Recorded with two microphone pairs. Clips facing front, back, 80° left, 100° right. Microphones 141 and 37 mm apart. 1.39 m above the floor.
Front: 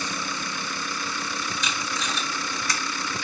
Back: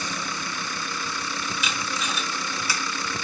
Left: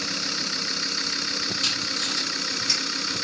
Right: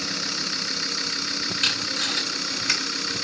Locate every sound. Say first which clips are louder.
1.6 s tape being pulled: even, right 5 dB; 95° right, 1.6 m